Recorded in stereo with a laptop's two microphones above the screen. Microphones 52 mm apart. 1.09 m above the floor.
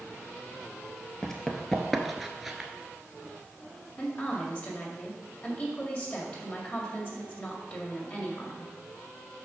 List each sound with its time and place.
1.2 s running footsteps: 10° left (ahead or behind), 1.4 m; by 2.7 s 5° right (ahead or behind), 1.1 m
4.0 s a woman speaking: 35° left (ahead or behind), 2 m